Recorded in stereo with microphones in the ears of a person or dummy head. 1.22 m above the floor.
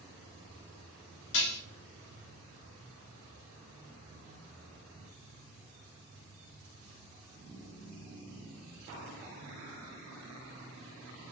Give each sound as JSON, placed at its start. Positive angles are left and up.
{"t": 1.3, "sound": "dishes clattering", "side_deg": 70, "distance_m": 1.3}